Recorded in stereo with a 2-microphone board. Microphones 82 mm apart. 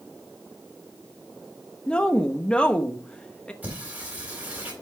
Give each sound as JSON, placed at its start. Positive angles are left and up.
{"t": 1.9, "sound": "a woman speaking", "side_deg": 15, "distance_m": 1.1}
{"t": 3.6, "sound": "singing", "side_deg": -20, "distance_m": 5.0}